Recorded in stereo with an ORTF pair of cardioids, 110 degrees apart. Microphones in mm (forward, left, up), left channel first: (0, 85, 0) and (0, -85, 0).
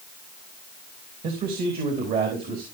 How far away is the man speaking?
About 3 m.